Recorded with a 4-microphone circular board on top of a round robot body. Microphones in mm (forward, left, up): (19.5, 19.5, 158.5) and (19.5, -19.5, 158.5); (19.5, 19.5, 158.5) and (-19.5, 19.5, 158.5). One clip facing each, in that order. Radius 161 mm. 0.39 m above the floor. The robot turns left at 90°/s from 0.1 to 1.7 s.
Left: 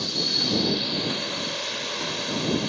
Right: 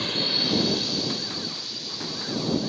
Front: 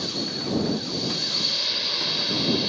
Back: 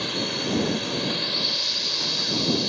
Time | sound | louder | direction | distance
0.0 | a drone | right 1 dB, back 2 dB | 140° right | ?